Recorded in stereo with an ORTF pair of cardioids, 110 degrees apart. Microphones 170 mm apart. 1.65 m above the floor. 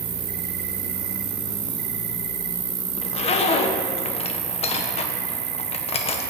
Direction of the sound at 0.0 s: 45° right.